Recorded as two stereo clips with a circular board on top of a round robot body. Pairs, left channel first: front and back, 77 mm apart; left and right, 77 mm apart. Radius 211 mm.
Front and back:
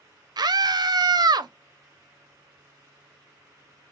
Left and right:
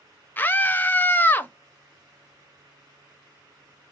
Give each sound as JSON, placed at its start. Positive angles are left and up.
{"t": 0.4, "sound": "a scream", "azimuth_deg": 155, "distance_m": 0.7}